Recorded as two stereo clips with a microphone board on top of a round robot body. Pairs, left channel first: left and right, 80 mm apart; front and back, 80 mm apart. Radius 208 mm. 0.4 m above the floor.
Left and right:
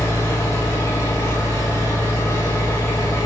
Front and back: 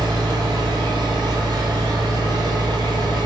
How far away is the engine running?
About 0.9 m.